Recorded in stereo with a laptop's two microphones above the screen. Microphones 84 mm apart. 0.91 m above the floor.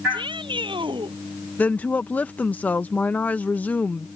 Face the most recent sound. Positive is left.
turn(degrees=20)  # may be behind; listen again after turning